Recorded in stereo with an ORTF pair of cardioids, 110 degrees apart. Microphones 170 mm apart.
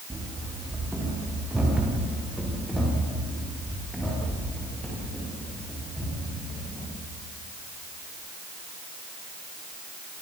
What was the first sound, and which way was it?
Running footsteps, 10° right.